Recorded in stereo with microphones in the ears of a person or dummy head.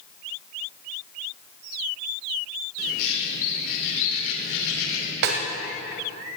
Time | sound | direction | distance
2.8 | a bird | 85° left | 3 m
5.2 | a snare drum | 60° right (ahead or behind) | 1.8 m